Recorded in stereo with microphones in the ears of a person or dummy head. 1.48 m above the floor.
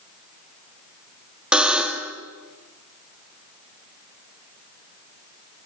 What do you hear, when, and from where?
1.5 s a buzzer: 5° right (ahead or behind), 1.7 m